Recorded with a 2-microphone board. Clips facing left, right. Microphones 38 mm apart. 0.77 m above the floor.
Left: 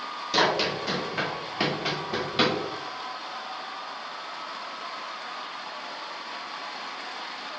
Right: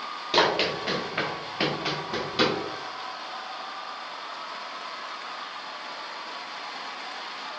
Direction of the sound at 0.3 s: 35° right (ahead or behind).